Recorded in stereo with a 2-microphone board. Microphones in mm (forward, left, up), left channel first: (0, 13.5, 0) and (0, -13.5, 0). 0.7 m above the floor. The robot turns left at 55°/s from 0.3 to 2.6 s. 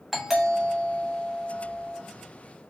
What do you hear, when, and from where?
0.1 s a doorbell: 170° right, 1.1 m; by 2.0 s 95° left, 1.1 m